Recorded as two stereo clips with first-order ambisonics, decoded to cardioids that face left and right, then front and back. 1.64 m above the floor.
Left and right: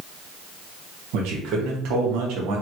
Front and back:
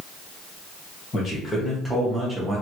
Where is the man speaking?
70° right, 1.2 m; by 2.6 s 115° right, 1.1 m.